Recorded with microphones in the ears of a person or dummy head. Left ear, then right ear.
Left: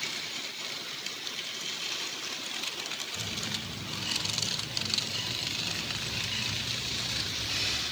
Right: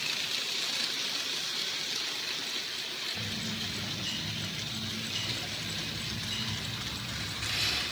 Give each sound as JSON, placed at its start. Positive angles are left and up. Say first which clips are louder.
{"t": 3.1, "sound": "a bird", "louder": "left 1 dB", "side_deg": 10, "distance_m": 2.5}